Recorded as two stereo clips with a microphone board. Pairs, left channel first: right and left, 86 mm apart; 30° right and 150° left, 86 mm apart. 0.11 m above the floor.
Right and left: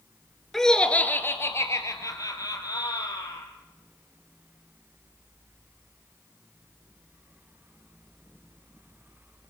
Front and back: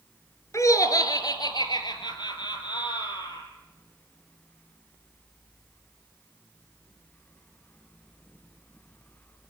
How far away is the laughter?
About 2 m.